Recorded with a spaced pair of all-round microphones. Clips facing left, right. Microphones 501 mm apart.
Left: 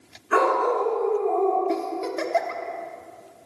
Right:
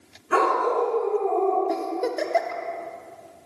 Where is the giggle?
25° left (ahead or behind), 0.6 m.